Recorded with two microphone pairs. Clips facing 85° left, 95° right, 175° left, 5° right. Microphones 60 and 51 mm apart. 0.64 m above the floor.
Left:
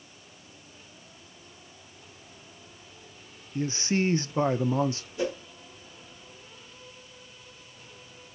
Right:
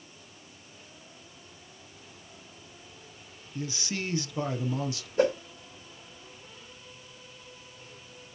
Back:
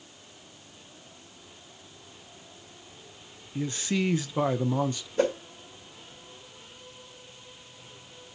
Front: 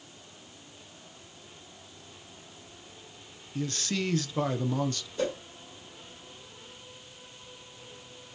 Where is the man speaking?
110° left, 0.8 m.